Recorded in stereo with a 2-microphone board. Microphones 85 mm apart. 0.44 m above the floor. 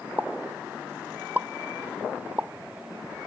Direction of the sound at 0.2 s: 20° right (ahead or behind).